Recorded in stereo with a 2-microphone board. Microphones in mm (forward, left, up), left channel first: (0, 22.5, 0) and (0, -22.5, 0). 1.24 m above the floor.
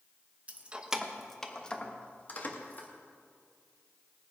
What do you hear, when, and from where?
0.5 s keys jangling: 30° right (ahead or behind), 1.0 m; by 2.9 s 45° left (ahead or behind), 2.0 m